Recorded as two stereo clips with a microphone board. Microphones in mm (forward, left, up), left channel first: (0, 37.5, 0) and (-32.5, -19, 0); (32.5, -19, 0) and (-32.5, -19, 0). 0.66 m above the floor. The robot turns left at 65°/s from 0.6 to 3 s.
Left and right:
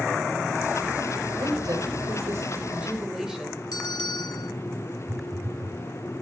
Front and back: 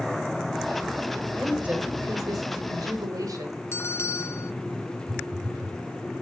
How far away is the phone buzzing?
About 4 m.